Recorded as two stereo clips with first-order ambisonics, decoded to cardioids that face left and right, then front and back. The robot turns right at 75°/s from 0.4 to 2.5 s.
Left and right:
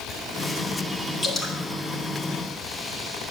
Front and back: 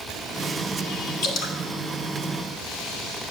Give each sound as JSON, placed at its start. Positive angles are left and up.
{"t": 1.2, "sound": "dripping", "azimuth_deg": 10, "distance_m": 1.6}